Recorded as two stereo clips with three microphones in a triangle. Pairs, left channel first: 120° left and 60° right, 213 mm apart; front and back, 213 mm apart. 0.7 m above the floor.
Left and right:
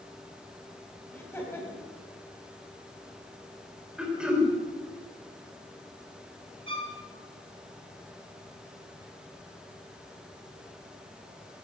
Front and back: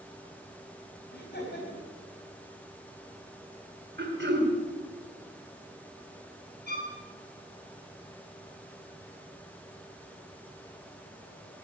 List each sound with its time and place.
1.1 s laughter: 40° left, 4 m
4.0 s throat clearing: 145° right, 2.5 m
6.7 s a violin: 40° right, 3 m